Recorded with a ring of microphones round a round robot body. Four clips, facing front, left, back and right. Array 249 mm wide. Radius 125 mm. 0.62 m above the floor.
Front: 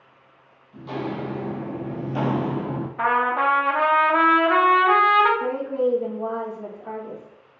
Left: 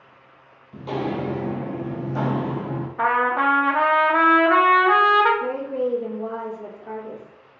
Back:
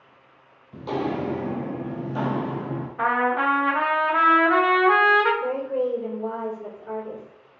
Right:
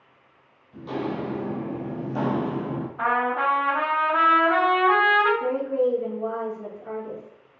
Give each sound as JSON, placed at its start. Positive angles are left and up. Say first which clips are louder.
{"t": 0.7, "sound": "footsteps", "louder": "left 3 dB, back 3 dB", "azimuth_deg": 145, "distance_m": 0.9}
{"t": 3.0, "sound": "a trumpet", "louder": "left 4 dB, front 1 dB", "azimuth_deg": 50, "distance_m": 1.1}
{"t": 5.4, "sound": "a woman speaking", "louder": "right 2 dB, front 2 dB", "azimuth_deg": -20, "distance_m": 1.9}